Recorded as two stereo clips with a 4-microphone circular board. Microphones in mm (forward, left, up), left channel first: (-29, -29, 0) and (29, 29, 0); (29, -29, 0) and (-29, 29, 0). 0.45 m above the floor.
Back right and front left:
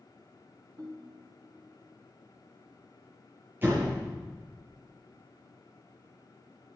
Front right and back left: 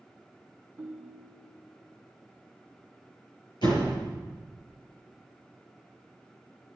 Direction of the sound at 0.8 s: 90° left.